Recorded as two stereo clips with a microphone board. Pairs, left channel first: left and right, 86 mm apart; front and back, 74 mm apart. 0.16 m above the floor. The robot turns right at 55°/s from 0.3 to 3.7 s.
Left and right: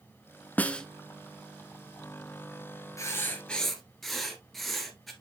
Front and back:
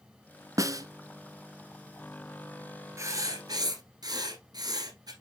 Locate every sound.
0.6 s a snare drum: 155° left, 0.6 m; by 0.9 s 170° left, 0.6 m
3.0 s writing: 140° left, 1.7 m; by 5.1 s straight behind, 1.7 m